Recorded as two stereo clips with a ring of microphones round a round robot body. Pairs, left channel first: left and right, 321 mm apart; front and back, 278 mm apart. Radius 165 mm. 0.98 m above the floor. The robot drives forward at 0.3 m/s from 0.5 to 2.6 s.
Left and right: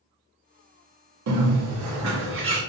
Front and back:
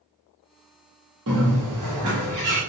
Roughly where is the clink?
No clink in this recording.